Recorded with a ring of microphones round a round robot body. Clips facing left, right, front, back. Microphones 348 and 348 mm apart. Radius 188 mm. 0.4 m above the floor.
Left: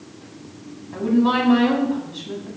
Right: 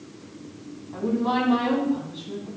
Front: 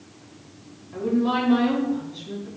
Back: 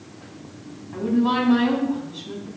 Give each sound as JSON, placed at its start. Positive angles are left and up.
{"t": 0.9, "sound": "a woman speaking", "azimuth_deg": 105, "distance_m": 3.5}